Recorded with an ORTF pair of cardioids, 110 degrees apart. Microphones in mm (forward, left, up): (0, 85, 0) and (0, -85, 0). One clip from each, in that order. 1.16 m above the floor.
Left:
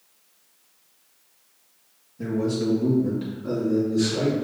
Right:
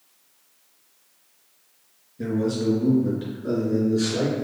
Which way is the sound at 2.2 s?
5° right.